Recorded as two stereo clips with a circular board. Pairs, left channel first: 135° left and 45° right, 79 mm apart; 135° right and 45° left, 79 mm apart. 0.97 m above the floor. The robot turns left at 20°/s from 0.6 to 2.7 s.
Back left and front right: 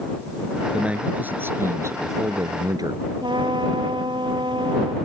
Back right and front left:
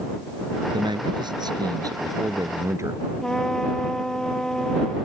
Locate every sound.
0.7 s a man speaking: 30° left; by 3.0 s 5° right
3.2 s a trumpet: 55° right